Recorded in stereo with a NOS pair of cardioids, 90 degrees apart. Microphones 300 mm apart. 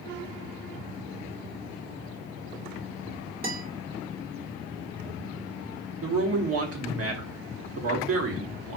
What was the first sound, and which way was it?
A guitar, 30° right.